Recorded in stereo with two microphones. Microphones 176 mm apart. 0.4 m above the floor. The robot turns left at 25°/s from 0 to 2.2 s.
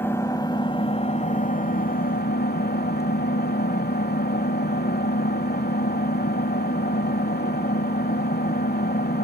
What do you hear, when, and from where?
0.0 s an engine running: 165° left, 1.1 m; by 9.3 s 110° left, 1.1 m